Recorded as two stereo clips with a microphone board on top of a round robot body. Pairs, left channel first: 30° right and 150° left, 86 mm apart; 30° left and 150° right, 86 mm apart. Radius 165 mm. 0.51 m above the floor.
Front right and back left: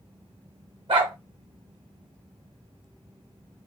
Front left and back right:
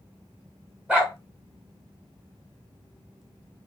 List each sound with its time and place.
0.9 s a dog barking: 130° left, 1.1 m